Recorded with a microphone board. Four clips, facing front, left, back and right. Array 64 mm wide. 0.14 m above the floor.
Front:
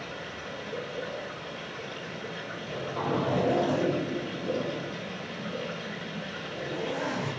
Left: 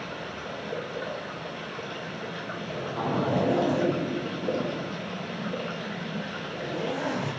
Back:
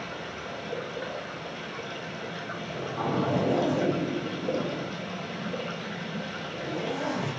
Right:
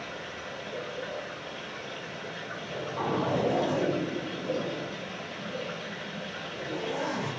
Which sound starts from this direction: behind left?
Running water, at 0.0 s.